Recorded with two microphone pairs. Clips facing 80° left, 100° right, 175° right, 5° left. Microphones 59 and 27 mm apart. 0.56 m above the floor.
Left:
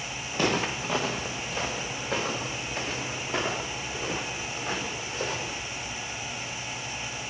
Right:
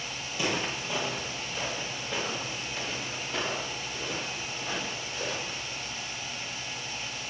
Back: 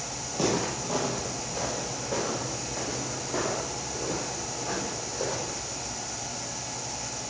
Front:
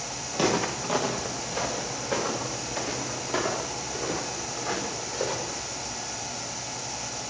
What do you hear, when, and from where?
0.3 s footsteps: 45° left, 1.9 m; by 5.6 s 35° left, 5.5 m